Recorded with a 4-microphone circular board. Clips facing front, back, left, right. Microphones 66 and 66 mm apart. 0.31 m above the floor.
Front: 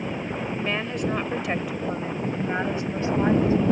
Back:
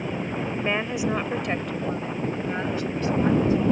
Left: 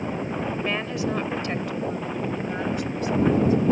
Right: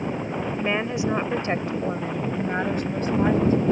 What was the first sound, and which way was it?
A woman speaking, 140° right.